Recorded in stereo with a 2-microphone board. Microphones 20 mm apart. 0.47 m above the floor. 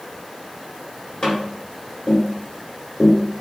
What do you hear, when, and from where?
1.2 s tapping: 40° left (ahead or behind), 1.4 m